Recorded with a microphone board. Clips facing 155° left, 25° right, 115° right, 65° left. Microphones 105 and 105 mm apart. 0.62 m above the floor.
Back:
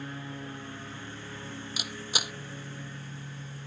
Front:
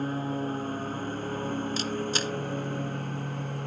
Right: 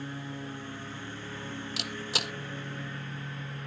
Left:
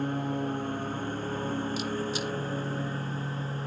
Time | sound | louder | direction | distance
0.0 | a lawn mower | front 10 dB, left 9 dB | 25° left | ?
1.8 | a camera shutter | front 8 dB, left 6 dB | 125° right | ?